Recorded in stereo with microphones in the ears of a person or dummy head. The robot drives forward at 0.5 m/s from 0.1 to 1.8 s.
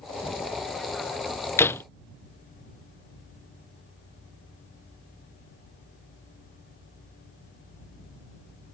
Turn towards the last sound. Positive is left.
turn(degrees=20)  # may be behind; listen again after turning